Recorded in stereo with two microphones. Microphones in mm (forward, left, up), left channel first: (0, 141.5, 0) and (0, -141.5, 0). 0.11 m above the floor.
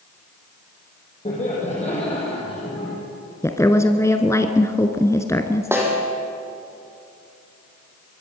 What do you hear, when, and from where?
1.2 s laughter: 25° left (ahead or behind), 5 m; by 3.0 s 15° left (ahead or behind), 4 m
3.4 s a woman speaking: 10° left (ahead or behind), 1.1 m
5.7 s a snare drum: 10° right (ahead or behind), 4 m